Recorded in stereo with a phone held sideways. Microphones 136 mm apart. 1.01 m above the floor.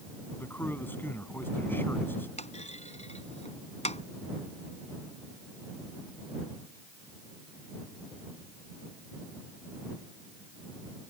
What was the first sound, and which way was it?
A man speaking, 15° left (ahead or behind).